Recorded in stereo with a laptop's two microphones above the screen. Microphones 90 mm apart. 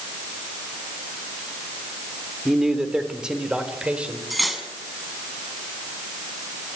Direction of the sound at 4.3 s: Centre (ahead or behind).